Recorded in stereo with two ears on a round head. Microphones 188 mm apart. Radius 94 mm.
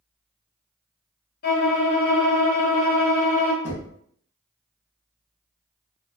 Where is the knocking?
35° left (ahead or behind), 1.1 m.